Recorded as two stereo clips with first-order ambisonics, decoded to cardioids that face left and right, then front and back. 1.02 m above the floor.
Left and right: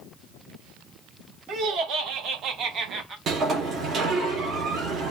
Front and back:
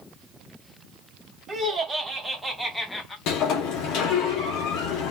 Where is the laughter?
110° right, 1.2 m; by 3.2 s 60° right, 0.7 m.